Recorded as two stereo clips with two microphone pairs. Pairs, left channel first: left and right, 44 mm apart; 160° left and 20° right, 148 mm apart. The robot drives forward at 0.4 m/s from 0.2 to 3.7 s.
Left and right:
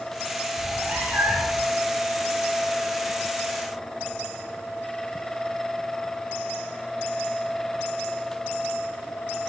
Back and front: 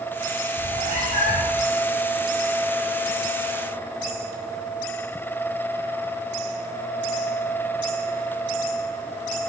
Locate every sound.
0.6 s a cat meowing: 40° right, 5 m; by 1.6 s 45° right, 5 m